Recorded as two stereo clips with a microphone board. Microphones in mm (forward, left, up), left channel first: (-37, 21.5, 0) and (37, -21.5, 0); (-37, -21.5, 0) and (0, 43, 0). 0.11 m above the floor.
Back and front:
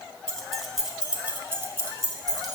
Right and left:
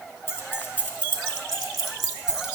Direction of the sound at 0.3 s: 140° right.